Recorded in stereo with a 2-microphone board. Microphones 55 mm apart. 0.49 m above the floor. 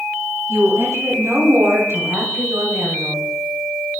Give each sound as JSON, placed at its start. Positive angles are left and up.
{"t": 0.5, "sound": "a woman speaking", "side_deg": -70, "distance_m": 4.0}